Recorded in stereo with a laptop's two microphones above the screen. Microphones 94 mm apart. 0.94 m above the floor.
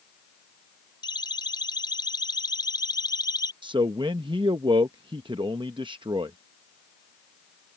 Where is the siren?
50° left (ahead or behind); by 3.5 s 45° left (ahead or behind).